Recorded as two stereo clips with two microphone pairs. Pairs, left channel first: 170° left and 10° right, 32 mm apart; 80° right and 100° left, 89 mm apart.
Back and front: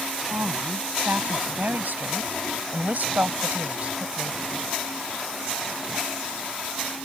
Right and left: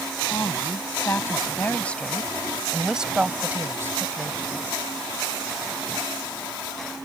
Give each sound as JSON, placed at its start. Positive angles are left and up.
{"t": 0.3, "sound": "a woman speaking", "azimuth_deg": -25}